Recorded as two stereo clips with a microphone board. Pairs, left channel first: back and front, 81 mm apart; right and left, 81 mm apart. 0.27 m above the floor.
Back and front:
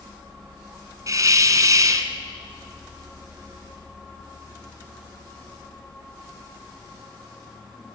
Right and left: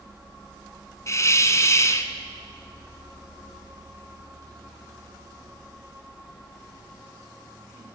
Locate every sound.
1.1 s a hiss: 40° right, 1.5 m